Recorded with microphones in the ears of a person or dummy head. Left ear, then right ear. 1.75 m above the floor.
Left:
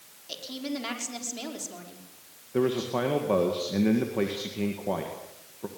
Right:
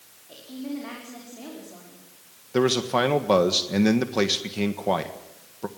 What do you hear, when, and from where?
0.3 s a woman speaking: 85° left, 5.5 m
2.5 s a man speaking: 65° right (ahead or behind), 1.5 m